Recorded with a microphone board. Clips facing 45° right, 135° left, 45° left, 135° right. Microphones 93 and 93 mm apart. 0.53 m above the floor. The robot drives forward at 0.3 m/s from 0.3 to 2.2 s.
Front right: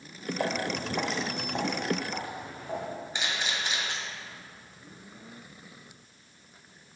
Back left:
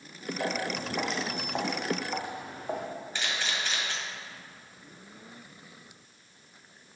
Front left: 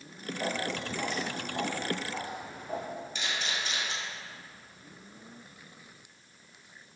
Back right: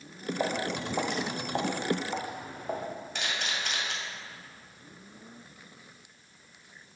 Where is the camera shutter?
120° right, 1.8 m.